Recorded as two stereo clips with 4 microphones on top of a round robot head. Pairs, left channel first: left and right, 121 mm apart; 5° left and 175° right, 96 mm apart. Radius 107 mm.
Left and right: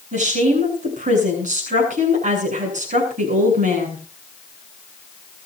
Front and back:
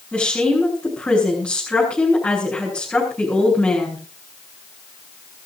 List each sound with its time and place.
0.1 s a woman speaking: 75° right, 8 m